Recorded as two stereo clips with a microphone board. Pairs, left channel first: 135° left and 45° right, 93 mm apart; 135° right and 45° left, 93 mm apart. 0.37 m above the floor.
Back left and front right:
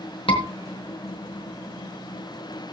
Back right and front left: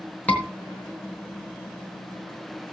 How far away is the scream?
About 4 m.